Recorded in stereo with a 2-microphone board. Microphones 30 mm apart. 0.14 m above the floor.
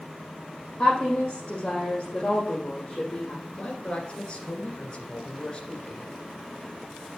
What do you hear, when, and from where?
0.8 s a woman speaking: 20° left (ahead or behind), 4.5 m
3.5 s a man speaking: 25° left (ahead or behind), 2.0 m